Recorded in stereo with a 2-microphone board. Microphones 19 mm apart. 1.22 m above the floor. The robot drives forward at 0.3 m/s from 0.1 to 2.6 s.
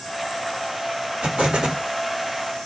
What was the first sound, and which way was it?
An explosion, 85° right.